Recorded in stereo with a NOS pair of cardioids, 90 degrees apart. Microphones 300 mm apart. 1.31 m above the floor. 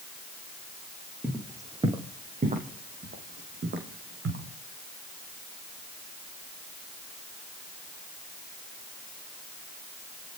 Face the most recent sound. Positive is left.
turn(degrees=-50)